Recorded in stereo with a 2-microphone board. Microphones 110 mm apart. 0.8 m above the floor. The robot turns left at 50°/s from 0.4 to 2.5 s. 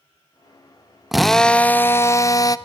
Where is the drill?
Straight behind, 0.6 m; by 2.6 s 115° left, 0.6 m.